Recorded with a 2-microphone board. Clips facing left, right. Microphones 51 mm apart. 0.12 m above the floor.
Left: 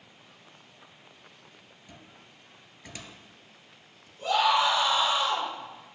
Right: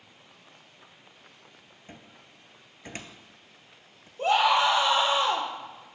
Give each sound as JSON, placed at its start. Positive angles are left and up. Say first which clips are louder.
{"t": 1.9, "sound": "a cupboard door", "louder": "right 3 dB", "side_deg": -40, "distance_m": 0.7}
{"t": 4.2, "sound": "a scream", "louder": "right 2 dB", "side_deg": -60, "distance_m": 2.5}